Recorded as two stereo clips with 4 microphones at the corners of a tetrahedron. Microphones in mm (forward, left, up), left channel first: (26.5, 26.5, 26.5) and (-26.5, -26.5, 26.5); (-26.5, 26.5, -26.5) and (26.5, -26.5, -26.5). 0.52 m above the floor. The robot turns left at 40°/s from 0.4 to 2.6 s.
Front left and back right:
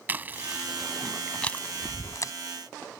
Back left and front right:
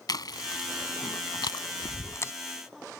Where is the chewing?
160° left; by 2.3 s 80° left.